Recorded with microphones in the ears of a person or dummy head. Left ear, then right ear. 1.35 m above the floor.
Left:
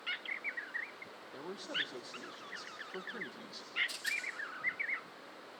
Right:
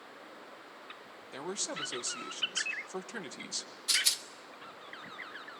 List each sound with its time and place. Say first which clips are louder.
1.3 s a man speaking: right 1 dB; 60° right (ahead or behind), 1.2 m
3.9 s a rattle: right 8 dB; 50° right (ahead or behind), 1.0 m